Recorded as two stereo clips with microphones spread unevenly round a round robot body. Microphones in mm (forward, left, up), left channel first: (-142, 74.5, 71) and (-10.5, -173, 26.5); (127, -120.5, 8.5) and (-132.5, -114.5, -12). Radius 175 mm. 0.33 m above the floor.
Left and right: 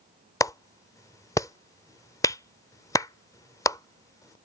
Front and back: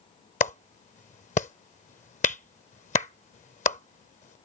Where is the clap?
30° left.